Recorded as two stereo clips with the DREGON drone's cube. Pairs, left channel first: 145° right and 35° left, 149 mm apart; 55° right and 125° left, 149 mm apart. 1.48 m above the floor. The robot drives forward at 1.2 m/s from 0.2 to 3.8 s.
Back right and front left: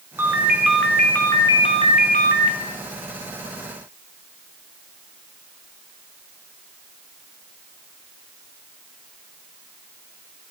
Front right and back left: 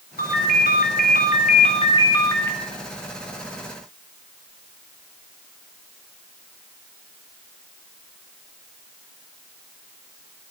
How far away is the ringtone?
About 2 m.